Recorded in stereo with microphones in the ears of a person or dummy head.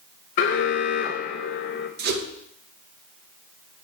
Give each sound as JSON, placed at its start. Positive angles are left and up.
{"t": 0.4, "sound": "an alarm", "side_deg": 45, "distance_m": 0.8}
{"t": 2.0, "sound": "a whoosh", "side_deg": -60, "distance_m": 1.4}